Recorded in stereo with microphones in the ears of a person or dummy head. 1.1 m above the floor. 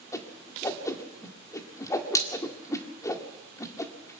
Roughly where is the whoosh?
Centre.